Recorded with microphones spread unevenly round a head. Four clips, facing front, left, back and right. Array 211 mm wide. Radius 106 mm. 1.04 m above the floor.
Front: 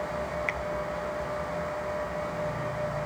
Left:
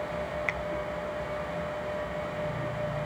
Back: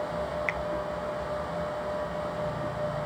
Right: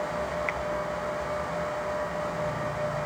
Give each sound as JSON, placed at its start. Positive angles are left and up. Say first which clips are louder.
{"t": 0.5, "sound": "a finger snap", "louder": "right 2 dB, back 1 dB", "azimuth_deg": 115}